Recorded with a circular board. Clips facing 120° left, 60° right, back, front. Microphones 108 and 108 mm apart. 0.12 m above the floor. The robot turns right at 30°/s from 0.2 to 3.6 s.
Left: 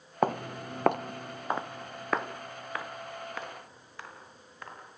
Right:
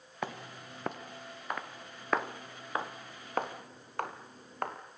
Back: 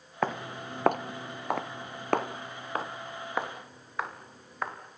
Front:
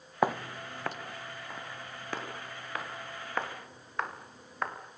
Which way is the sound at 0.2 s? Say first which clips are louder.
Left 11 dB, front 2 dB; 75° left.